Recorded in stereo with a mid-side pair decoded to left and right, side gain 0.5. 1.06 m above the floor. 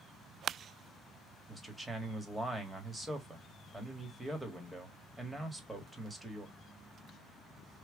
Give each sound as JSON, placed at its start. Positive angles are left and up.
{"t": 1.5, "sound": "a man speaking", "azimuth_deg": -15, "distance_m": 1.6}